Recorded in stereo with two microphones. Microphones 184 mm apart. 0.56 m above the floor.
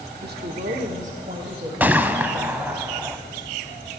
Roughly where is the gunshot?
Centre.